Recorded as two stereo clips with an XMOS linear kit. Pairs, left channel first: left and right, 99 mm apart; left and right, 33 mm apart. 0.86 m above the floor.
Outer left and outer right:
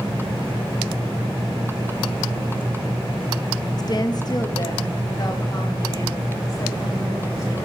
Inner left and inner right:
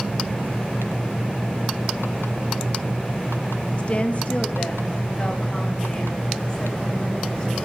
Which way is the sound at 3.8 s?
40° left (ahead or behind).